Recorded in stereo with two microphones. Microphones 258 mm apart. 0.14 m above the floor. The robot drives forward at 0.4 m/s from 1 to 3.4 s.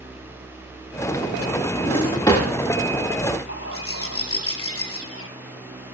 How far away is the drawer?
About 7.5 m.